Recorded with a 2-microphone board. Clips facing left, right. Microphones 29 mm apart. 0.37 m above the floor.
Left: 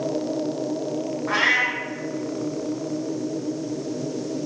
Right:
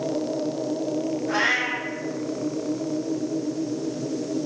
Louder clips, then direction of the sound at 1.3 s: Left 4 dB; 70° left (ahead or behind).